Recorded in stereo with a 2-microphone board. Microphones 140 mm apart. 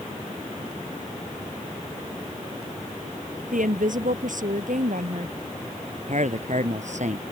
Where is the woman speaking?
75° right (ahead or behind).